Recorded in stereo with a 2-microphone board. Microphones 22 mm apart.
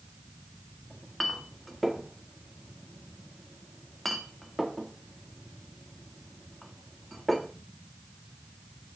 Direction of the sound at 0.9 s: 5° left (ahead or behind).